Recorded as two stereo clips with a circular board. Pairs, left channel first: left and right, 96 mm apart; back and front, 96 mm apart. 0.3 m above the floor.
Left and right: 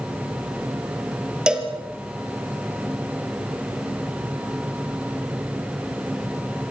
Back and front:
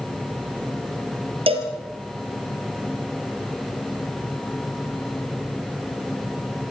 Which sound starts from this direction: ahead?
A cowbell, at 1.5 s.